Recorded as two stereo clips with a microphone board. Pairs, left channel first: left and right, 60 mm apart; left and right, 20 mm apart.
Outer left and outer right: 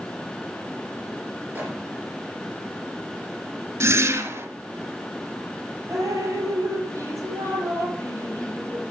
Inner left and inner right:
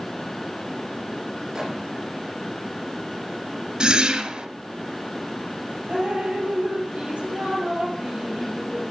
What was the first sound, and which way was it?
A microwave, 30° right (ahead or behind).